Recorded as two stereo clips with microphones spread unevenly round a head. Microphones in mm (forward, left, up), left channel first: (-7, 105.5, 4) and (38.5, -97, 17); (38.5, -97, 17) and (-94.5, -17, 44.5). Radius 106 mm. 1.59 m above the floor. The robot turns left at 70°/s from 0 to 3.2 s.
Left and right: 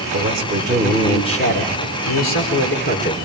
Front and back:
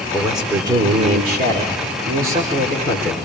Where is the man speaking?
110° right, 4 m; by 3.1 s 35° left, 4 m.